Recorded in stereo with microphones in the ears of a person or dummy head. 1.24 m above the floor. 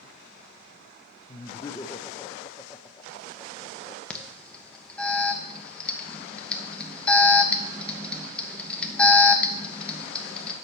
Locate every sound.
1.3 s laughter: 20° left (ahead or behind), 0.5 m
4.1 s an alarm: 5° left (ahead or behind), 1.0 m